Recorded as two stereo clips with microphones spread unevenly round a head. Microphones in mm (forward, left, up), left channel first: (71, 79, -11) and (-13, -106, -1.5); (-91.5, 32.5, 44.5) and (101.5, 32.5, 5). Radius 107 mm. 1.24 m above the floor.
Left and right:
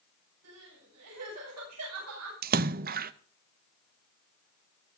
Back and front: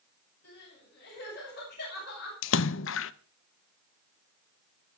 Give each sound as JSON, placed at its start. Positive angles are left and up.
{"t": 0.4, "sound": "crying", "azimuth_deg": -135, "distance_m": 9.5}
{"t": 2.4, "sound": "a splash", "azimuth_deg": -160, "distance_m": 0.6}